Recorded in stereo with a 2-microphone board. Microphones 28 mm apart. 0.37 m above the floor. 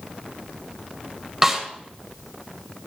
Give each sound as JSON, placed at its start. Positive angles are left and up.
{"t": 1.4, "sound": "a snare drum", "side_deg": -15, "distance_m": 1.4}